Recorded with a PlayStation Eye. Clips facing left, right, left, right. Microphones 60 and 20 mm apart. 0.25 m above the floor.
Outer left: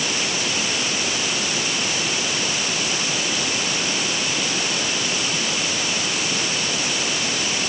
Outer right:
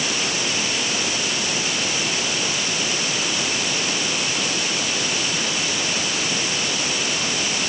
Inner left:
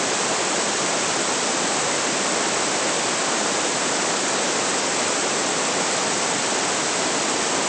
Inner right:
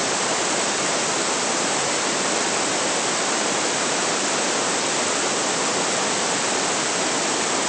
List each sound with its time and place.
Only background noise.